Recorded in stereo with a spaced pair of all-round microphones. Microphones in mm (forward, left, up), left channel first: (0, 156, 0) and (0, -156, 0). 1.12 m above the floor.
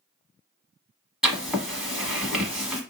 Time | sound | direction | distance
1.2 | writing | centre (ahead or behind) | 1.2 m